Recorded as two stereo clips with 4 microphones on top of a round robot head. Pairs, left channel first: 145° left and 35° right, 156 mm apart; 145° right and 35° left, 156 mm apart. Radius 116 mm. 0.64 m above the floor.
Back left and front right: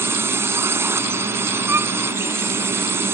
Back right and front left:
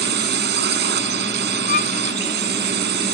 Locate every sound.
0.0 s a drone: 40° left
1.7 s a violin: 110° right